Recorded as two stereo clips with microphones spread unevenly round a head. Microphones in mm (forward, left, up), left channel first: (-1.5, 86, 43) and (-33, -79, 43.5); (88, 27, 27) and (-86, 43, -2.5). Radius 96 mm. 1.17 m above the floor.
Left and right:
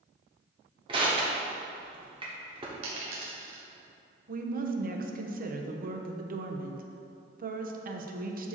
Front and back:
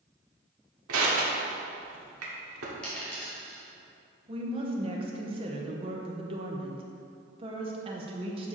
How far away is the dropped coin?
About 1.6 m.